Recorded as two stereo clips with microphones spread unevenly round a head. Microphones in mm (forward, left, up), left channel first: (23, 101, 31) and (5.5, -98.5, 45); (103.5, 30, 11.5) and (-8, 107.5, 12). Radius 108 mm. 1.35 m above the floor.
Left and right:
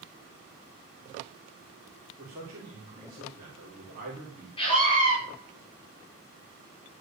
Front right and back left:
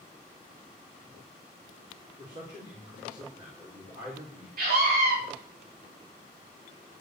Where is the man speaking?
150° right, 4.5 m.